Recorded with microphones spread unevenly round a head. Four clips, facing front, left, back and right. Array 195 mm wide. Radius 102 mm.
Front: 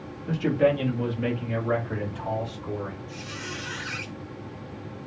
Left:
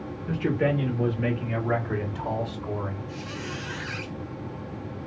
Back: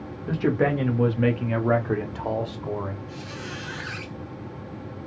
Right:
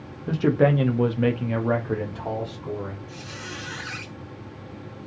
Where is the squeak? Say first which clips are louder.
Left 3 dB, back 1 dB; 100° right, 1.8 m.